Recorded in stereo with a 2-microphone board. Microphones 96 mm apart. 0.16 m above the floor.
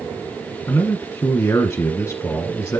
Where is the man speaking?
30° left (ahead or behind), 1.2 m.